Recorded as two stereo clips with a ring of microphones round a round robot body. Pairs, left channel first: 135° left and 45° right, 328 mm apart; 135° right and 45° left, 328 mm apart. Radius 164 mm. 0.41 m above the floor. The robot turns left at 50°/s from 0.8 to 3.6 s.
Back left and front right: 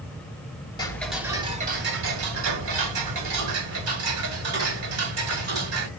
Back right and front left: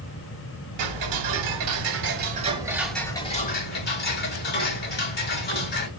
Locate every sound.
0.8 s ticking: 60° left, 1.7 m; by 5.9 s 80° right, 1.7 m